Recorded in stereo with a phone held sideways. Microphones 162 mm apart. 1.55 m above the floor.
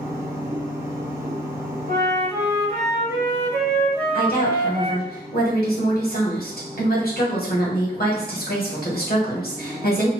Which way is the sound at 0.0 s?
20° right (ahead or behind).